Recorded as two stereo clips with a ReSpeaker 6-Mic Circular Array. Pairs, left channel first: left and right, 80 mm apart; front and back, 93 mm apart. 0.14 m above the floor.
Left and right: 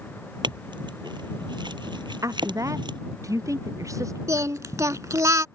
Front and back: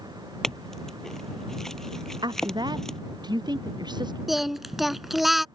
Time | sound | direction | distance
0.4 | a clink | 85° right | ?
2.2 | a woman speaking | 140° right | ?
4.3 | singing | 90° right | ?